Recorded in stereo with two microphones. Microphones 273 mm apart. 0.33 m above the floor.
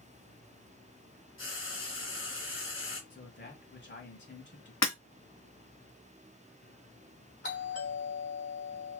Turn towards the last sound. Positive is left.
turn(degrees=40)  # may be behind; listen again after turning